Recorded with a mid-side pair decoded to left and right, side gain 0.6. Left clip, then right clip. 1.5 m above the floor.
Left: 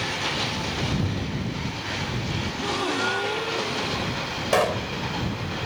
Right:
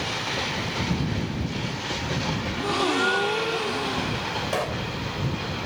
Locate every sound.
2.5 s a gasp: 20° right
4.5 s a pop: 35° left